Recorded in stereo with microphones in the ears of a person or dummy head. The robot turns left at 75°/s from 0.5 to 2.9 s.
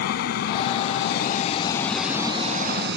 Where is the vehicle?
55° left (ahead or behind); by 3.0 s 70° right (ahead or behind).